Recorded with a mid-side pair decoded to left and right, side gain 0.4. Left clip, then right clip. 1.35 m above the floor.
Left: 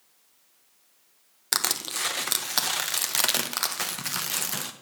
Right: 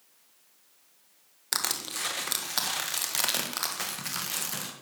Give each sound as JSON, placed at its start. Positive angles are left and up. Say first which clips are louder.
{"t": 1.5, "sound": "crushing", "louder": "left 4 dB", "azimuth_deg": 35, "distance_m": 1.5}